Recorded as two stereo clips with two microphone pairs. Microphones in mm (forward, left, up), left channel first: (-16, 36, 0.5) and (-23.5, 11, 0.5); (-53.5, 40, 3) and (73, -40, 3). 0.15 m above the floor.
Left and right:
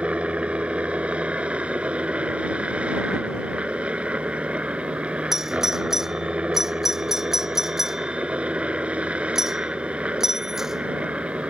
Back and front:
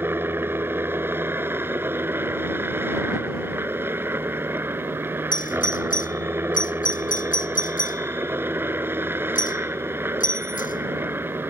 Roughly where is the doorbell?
Behind.